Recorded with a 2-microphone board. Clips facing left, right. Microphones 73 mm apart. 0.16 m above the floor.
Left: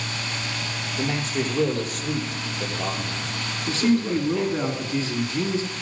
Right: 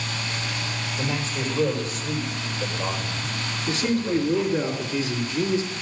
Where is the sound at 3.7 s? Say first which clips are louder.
Left 3 dB; 35° left (ahead or behind), 1.8 m.